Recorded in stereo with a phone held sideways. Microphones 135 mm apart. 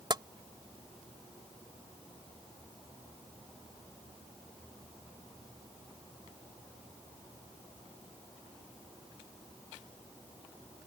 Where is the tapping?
35° right (ahead or behind).